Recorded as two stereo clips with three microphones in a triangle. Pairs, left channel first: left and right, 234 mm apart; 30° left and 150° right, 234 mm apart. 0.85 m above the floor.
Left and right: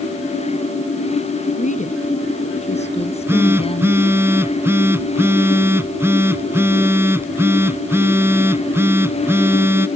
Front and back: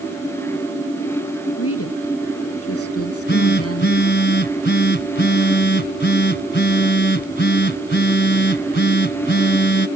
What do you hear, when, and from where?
1.6 s a woman speaking: 35° left; by 4.0 s 25° left
3.0 s a phone buzzing: 10° right